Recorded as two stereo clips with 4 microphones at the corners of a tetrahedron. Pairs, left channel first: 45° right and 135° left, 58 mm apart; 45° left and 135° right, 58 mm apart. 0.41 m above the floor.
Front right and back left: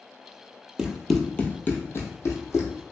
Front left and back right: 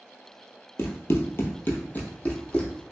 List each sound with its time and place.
0.8 s running footsteps: 60° left, 0.6 m; by 2.8 s 25° right, 1.1 m